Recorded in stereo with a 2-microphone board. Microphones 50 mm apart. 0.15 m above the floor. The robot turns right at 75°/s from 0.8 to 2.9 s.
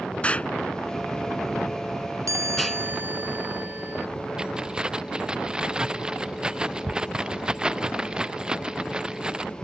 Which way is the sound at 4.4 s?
20° right (ahead or behind).